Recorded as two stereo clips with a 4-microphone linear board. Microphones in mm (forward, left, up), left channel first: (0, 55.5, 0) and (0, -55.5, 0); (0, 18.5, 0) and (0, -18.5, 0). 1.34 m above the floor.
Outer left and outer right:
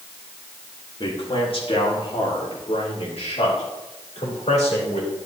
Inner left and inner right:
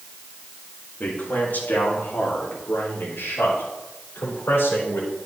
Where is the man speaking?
50° left (ahead or behind), 2 m; by 5.1 s 80° left, 4.5 m.